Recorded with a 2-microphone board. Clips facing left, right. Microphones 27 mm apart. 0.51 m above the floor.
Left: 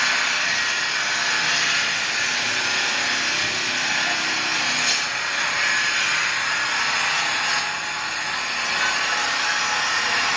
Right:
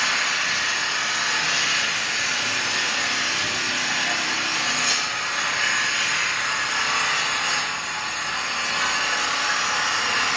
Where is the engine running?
35° left (ahead or behind), 1.7 m.